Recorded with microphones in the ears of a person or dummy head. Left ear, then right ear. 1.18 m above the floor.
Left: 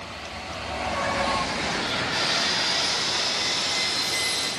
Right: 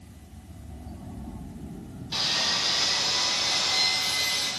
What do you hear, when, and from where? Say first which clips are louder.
2.1 s sawing: right 1 dB; 15° right (ahead or behind), 2.5 m